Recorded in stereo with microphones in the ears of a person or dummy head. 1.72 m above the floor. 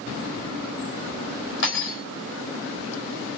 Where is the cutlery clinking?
75° left (ahead or behind), 4 m.